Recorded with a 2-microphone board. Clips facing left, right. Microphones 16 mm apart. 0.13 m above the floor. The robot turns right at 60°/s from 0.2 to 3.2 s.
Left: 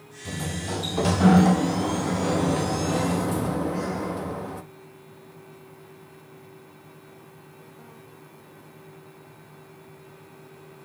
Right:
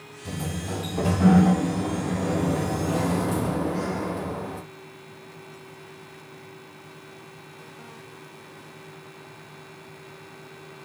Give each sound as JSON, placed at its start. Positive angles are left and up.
{"t": 0.2, "sound": "a sliding door", "azimuth_deg": 5, "distance_m": 1.5}